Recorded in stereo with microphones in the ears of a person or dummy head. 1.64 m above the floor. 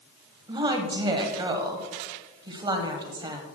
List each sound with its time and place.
0.5 s a woman speaking: 20° right (ahead or behind), 1.3 m